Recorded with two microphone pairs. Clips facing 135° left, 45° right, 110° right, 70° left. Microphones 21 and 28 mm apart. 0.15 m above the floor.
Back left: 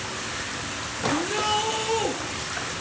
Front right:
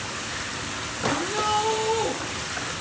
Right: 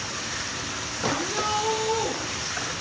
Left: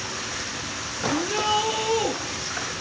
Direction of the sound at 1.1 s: 90° left.